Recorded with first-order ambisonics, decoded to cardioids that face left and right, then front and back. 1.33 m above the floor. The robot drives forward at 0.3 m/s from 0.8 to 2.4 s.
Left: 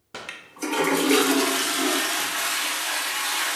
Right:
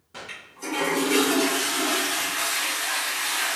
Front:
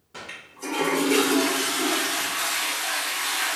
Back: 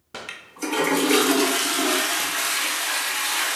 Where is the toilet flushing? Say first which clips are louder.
Left 3 dB, back 4 dB; 135° left, 0.8 m; by 3.6 s 155° left, 1.2 m.